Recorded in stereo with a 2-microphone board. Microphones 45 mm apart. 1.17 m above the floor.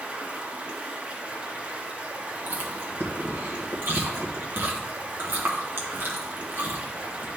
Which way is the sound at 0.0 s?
30° right (ahead or behind).